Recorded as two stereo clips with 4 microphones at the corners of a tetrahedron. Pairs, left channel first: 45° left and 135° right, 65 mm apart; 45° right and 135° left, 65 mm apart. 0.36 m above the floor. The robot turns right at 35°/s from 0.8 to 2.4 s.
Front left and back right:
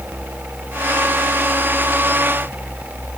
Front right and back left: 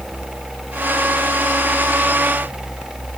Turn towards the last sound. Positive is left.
No sound to turn to.